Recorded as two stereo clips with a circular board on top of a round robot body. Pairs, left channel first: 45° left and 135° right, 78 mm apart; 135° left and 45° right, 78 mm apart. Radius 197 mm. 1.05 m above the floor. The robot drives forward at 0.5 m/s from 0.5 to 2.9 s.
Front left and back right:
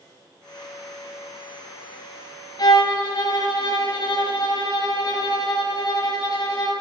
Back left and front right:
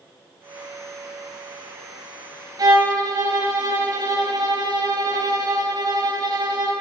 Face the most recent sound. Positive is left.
turn(degrees=0)